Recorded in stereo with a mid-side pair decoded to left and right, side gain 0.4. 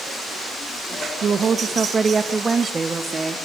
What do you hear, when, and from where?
1.2 s a woman speaking: 55° right, 1.3 m; by 3.5 s 30° right, 3 m